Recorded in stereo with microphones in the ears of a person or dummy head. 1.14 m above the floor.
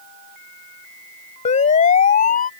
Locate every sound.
1.4 s a siren: 40° left (ahead or behind); by 2.5 s 45° left (ahead or behind)